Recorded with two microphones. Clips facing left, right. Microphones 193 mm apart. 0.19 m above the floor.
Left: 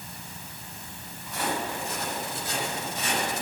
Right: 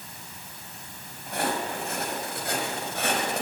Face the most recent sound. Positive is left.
turn(degrees=-65)  # may be behind; listen again after turning